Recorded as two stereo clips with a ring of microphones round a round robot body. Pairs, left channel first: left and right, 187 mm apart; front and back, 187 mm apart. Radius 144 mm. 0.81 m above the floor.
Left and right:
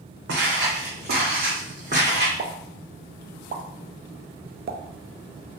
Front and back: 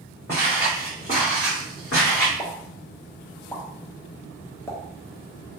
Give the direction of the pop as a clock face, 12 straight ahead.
2 o'clock.